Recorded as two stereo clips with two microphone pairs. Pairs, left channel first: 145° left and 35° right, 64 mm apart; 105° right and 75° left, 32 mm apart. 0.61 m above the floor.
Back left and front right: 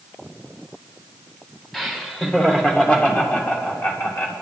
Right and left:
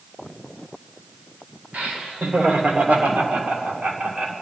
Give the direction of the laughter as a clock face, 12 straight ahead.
10 o'clock.